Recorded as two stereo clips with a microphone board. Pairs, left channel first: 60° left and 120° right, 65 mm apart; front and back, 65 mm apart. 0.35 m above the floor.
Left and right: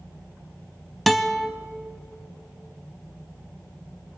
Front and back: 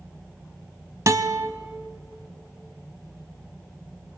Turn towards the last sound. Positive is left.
turn(degrees=150)